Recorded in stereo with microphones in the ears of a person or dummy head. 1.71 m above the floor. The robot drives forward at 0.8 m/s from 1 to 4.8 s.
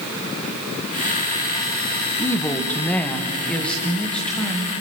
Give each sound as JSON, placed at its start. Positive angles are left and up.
{"t": 2.2, "sound": "a woman speaking", "side_deg": 15, "distance_m": 1.1}